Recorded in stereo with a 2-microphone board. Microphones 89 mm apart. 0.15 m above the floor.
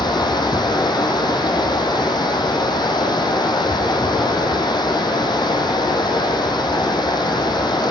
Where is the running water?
55° left (ahead or behind), 4.5 m.